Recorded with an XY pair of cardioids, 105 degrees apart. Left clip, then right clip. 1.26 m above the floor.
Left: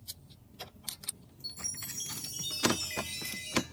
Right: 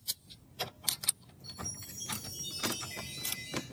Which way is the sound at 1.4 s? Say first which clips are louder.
Left 4 dB; 70° left.